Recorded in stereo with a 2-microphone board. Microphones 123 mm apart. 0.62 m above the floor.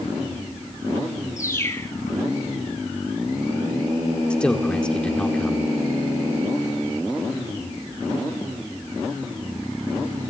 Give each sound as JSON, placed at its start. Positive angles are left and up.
{"t": 1.4, "sound": "a bird", "side_deg": 25, "distance_m": 1.8}
{"t": 4.3, "sound": "a man speaking", "side_deg": 10, "distance_m": 1.8}